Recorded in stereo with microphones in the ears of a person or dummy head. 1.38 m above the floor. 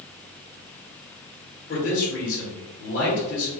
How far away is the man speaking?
About 1.5 m.